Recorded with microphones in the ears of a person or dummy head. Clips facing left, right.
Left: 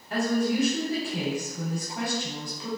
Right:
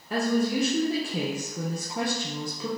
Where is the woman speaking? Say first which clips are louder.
Even; 70° right (ahead or behind), 0.6 m.